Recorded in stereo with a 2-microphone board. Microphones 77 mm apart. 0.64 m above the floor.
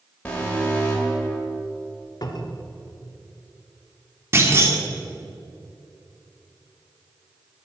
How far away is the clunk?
About 1.7 m.